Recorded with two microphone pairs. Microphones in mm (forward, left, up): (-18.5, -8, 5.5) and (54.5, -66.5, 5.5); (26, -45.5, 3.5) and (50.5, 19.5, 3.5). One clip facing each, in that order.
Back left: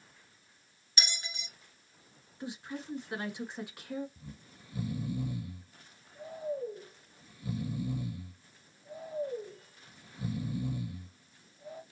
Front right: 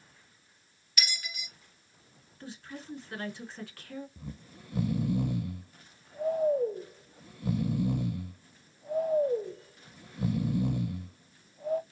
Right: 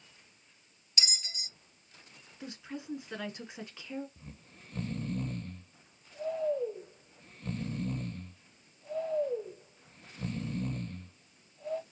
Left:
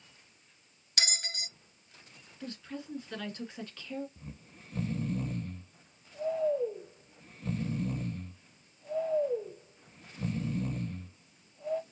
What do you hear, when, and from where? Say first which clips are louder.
1.0 s a bell: front right 2 dB, left 4 dB; 80° left, 0.5 m
2.4 s a woman speaking: back left 3 dB, left 1 dB; 165° right, 1.4 m
4.2 s snoring: front right 5 dB, left 3 dB; 15° right, 0.6 m